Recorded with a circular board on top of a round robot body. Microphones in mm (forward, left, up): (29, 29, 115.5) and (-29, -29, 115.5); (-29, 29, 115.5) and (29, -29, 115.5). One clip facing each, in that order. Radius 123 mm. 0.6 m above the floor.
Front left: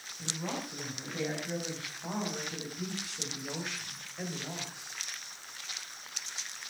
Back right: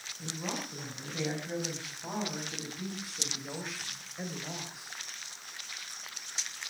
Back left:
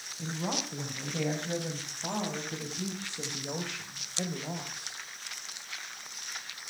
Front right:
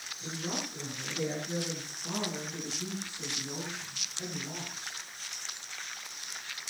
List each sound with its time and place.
0.2 s a woman speaking: 135° left, 6 m; by 5.0 s 140° left, 3.5 m